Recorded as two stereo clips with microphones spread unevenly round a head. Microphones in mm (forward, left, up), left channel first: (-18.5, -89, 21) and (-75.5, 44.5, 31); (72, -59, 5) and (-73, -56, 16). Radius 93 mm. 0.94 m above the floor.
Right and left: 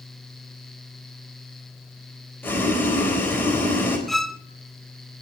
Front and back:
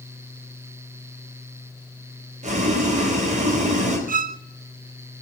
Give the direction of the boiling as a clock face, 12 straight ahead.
5 o'clock.